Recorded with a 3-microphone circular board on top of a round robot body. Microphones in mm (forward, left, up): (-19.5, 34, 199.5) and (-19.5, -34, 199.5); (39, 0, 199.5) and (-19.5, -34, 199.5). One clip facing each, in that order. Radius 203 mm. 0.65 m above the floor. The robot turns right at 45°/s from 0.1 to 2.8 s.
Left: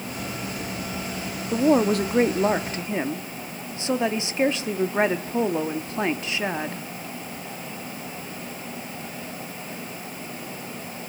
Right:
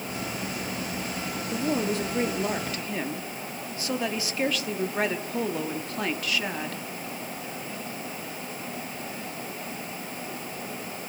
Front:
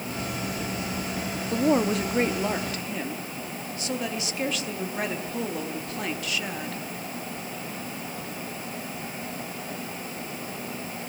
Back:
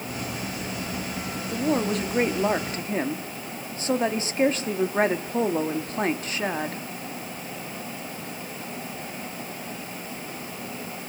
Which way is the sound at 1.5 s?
95° left.